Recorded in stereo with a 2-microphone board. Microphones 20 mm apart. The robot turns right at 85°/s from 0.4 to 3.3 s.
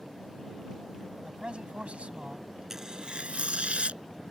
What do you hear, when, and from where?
1.2 s a man speaking: 145° right; by 2.5 s 40° right
2.7 s tearing paper: 165° right; by 4.0 s 115° right